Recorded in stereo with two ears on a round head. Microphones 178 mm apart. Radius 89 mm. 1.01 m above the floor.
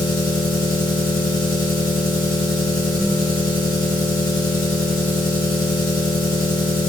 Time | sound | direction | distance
0.0 | an engine running | 45° left (ahead or behind) | 3.5 m